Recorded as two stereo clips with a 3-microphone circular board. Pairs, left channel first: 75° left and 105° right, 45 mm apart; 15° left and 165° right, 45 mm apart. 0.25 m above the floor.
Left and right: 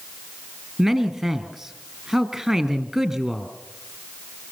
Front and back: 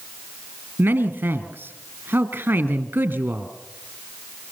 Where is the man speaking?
170° left, 1.7 m.